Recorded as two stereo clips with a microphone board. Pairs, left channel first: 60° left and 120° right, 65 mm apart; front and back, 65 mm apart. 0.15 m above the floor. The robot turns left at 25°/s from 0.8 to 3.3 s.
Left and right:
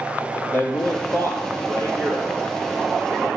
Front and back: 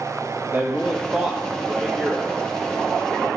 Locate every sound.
0.5 s a man speaking: 115° left, 3.5 m; by 3.3 s 50° left, 3.5 m